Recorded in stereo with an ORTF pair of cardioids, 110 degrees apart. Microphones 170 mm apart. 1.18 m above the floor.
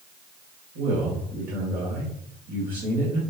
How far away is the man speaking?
About 1.8 m.